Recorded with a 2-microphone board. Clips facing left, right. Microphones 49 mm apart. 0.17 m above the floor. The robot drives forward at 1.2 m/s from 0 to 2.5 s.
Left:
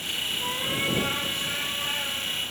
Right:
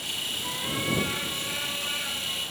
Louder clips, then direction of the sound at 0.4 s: Left 3 dB; 70° left (ahead or behind).